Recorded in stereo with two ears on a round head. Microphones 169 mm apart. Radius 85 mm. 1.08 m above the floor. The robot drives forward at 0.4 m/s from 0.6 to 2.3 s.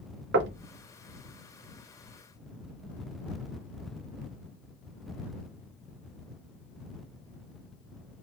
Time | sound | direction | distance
0.3 | knocking | 65° right (ahead or behind) | 0.6 m